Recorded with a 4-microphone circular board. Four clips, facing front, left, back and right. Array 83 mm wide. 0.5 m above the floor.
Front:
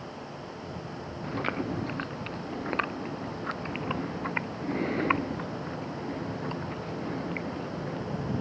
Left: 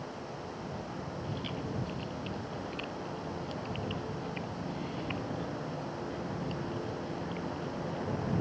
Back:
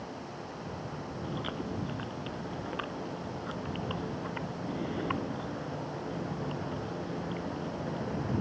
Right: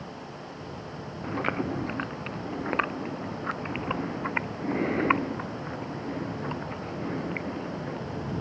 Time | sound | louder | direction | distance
1.2 | chewing | right 13 dB, front 7 dB | 65° right | ?